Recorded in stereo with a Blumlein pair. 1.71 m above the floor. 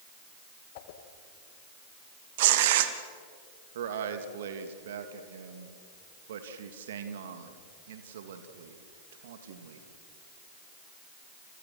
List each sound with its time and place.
0.8 s a whoosh: 50° left, 2 m
2.4 s tearing paper: 55° right, 1.9 m
3.8 s a man speaking: 60° right, 3 m